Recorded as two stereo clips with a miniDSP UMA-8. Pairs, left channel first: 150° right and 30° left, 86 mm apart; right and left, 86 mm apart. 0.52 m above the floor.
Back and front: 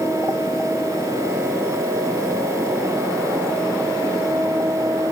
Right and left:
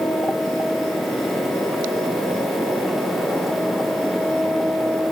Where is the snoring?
No snoring in this recording.